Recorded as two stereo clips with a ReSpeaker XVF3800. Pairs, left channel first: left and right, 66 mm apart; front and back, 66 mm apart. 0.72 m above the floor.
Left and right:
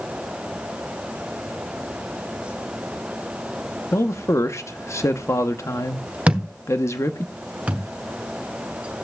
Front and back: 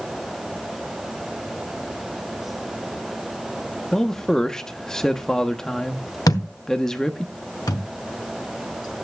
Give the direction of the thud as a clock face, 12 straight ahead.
1 o'clock.